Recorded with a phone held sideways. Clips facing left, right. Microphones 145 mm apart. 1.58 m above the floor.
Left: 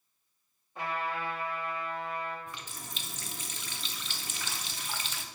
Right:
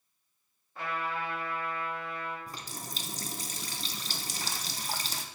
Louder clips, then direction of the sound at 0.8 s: Left 1 dB; 15° left (ahead or behind).